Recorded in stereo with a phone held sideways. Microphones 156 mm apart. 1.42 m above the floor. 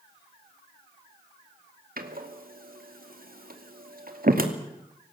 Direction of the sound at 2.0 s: 70° right (ahead or behind).